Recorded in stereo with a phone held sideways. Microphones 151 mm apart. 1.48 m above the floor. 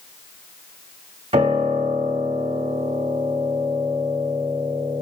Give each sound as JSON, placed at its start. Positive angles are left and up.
{"t": 1.3, "sound": "a piano", "side_deg": -40, "distance_m": 1.2}